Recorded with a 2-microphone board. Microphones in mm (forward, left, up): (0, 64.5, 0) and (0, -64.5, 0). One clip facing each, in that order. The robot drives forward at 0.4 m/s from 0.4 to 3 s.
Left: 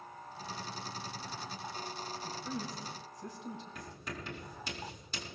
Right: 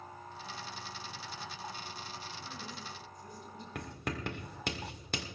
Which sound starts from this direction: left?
A woman speaking, at 2.2 s.